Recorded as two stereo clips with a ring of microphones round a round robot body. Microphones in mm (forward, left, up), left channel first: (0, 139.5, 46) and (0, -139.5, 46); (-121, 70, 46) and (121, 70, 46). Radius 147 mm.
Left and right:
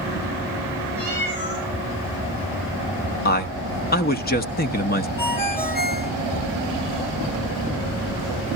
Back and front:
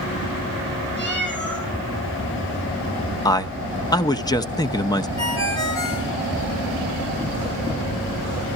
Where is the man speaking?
115° left, 1.0 m.